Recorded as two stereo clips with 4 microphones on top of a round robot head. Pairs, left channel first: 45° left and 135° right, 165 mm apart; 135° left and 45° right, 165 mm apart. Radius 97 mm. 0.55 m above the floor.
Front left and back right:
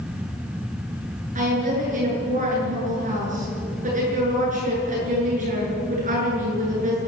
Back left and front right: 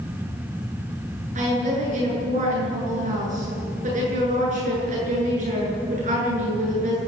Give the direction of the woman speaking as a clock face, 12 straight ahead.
3 o'clock.